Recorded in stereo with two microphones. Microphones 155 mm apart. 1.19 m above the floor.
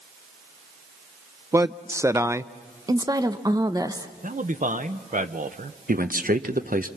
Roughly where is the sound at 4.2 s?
Right.